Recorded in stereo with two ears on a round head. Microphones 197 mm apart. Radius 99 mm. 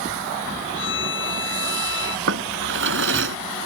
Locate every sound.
0.8 s a violin: 60° left (ahead or behind)
2.3 s a drawer: 60° right (ahead or behind)